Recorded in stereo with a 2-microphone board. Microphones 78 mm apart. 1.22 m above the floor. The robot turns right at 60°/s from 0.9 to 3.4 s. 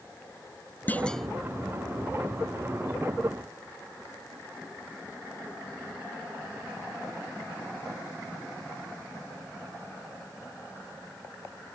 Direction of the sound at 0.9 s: 20° left (ahead or behind).